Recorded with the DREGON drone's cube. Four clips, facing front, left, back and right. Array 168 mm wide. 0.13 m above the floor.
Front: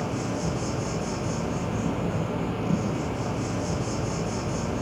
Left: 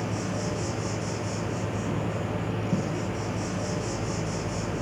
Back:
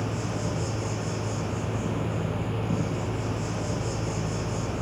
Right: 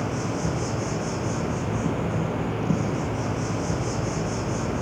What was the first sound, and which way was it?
An insect, 75° right.